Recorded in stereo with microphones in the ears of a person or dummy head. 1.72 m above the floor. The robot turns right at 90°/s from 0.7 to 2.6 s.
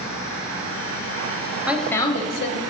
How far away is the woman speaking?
About 0.9 m.